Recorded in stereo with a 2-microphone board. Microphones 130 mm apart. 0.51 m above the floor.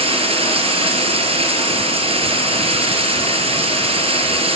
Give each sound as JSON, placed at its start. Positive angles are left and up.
{"t": 0.0, "sound": "running water", "side_deg": -50, "distance_m": 5.5}